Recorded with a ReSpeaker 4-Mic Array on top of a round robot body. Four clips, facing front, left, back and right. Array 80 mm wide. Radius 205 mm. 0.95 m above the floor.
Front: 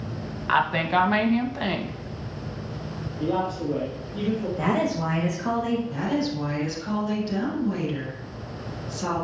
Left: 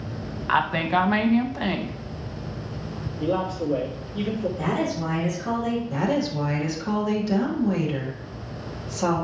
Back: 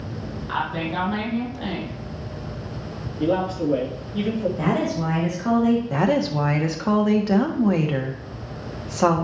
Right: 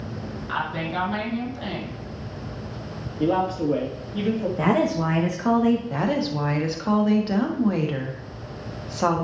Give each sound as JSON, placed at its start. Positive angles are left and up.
{"t": 0.5, "sound": "a woman speaking", "azimuth_deg": 55, "distance_m": 1.7}
{"t": 3.2, "sound": "a man speaking", "azimuth_deg": -105, "distance_m": 2.5}
{"t": 4.6, "sound": "a woman speaking", "azimuth_deg": -90, "distance_m": 1.7}
{"t": 5.9, "sound": "a woman speaking", "azimuth_deg": -155, "distance_m": 1.7}